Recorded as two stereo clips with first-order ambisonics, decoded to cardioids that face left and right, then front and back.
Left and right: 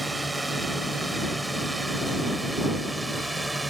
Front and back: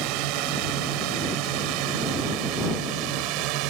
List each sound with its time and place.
0.0 s a drone: 170° right; by 3.7 s 175° right